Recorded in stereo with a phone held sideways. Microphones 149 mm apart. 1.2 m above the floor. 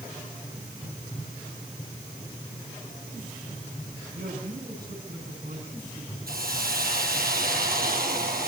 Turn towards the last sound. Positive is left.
turn(degrees=-75)  # may be behind; listen again after turning